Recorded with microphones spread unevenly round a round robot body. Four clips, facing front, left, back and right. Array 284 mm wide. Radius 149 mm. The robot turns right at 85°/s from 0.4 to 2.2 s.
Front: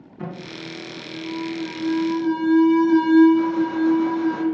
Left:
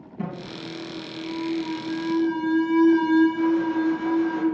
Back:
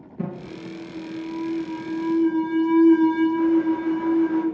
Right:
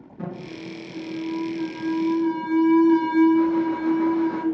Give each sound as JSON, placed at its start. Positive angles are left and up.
{"t": 0.2, "sound": "an alarm", "azimuth_deg": 155, "distance_m": 3.5}